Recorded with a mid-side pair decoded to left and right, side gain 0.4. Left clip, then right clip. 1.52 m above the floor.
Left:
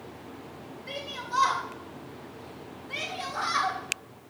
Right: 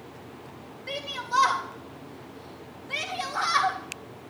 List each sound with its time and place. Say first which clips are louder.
0.9 s a shout: right 4 dB; 40° right, 3 m